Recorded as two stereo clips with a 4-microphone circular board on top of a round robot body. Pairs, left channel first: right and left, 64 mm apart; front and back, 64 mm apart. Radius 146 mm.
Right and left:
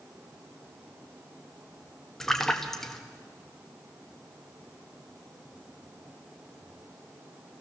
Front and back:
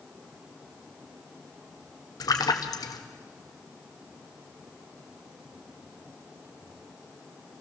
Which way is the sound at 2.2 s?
10° right.